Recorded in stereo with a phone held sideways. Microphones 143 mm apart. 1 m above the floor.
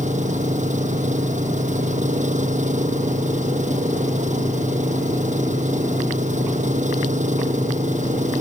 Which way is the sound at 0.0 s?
60° right (ahead or behind).